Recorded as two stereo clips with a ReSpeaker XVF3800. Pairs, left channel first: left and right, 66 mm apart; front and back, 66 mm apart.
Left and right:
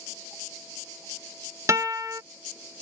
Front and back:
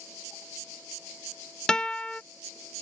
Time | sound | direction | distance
1.7 | a guitar | 75° right | ?